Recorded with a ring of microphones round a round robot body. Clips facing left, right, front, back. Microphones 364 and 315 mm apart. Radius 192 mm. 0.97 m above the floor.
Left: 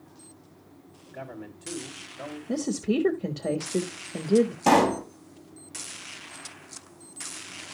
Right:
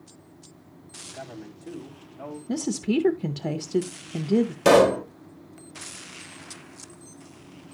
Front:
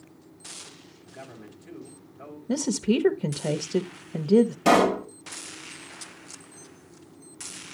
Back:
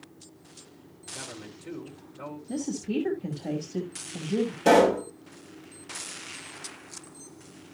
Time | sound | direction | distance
1.1 | a man speaking | 160° right | 4.5 m
2.5 | a woman speaking | 30° right | 0.8 m
4.7 | a pop | 80° right | 2 m